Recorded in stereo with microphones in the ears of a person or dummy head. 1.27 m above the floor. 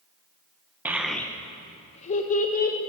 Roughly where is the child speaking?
Centre.